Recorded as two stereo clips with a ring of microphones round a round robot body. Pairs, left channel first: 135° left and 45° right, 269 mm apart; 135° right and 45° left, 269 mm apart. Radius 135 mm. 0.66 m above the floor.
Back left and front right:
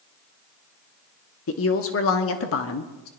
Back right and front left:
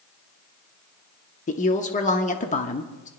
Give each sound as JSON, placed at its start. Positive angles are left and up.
{"t": 1.5, "sound": "a woman speaking", "azimuth_deg": 165, "distance_m": 1.0}